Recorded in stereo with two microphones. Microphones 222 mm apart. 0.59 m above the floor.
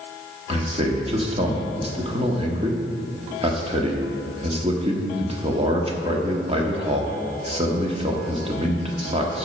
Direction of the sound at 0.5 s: 25° right (ahead or behind).